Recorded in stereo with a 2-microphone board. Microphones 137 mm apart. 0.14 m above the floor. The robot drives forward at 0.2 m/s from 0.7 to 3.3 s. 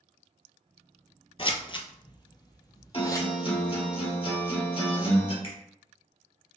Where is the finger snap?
45° left (ahead or behind), 1.8 m.